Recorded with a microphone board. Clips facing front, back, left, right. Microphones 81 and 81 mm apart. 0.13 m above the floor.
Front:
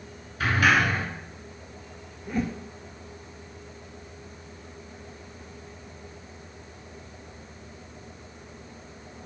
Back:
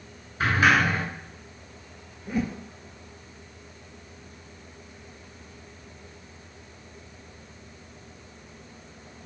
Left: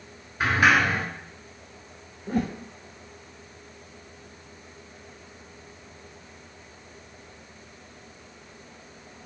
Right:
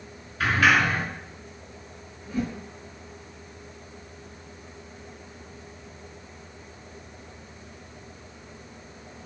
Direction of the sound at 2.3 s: 95° left.